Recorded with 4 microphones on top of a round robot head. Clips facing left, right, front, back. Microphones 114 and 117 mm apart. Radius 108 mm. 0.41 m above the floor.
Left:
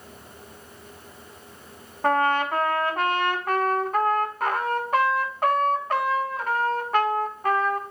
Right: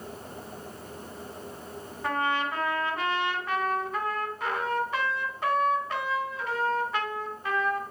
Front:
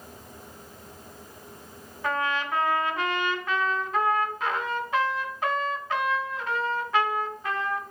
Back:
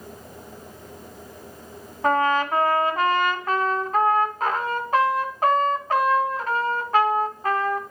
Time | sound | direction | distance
2.0 | a trumpet | 130° left | 3 m